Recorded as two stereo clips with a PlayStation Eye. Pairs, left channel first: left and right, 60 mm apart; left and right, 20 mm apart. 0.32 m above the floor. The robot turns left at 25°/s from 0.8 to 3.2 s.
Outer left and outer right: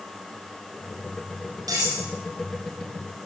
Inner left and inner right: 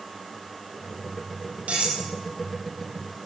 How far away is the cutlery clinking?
About 7.5 m.